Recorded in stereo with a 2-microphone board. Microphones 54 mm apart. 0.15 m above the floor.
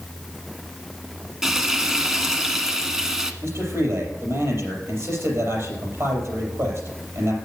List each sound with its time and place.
1.4 s frying: 10° right (ahead or behind), 1.0 m
3.4 s a man speaking: 55° right (ahead or behind), 4.5 m